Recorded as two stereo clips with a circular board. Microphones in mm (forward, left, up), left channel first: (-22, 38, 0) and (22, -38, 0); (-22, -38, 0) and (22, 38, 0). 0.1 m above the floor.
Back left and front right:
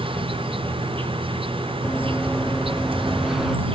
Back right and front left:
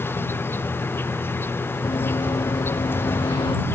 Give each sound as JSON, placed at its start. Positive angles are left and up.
{"t": 0.0, "sound": "an insect", "azimuth_deg": -55}
{"t": 1.8, "sound": "running footsteps", "azimuth_deg": -160}